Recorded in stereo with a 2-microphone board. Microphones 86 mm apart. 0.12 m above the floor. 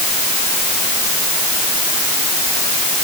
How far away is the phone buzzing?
No phone buzzing in this recording.